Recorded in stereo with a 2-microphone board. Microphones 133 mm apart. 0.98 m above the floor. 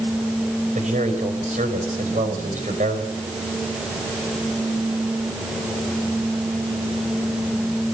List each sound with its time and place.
0.8 s a man speaking: 70° right (ahead or behind), 6 m